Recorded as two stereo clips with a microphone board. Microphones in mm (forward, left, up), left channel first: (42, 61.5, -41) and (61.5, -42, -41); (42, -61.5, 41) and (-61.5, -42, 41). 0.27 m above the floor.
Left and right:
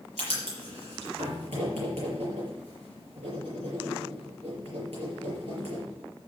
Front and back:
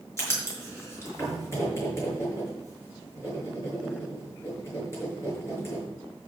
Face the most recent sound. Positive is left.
turn(degrees=-75)